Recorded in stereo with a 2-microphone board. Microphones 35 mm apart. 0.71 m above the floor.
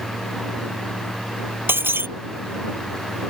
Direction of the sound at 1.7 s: 75° right (ahead or behind).